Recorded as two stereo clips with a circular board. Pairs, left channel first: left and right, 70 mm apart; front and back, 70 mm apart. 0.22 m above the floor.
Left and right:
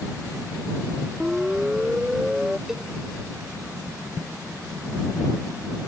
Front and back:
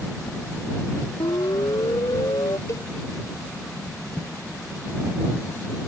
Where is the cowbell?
10° right.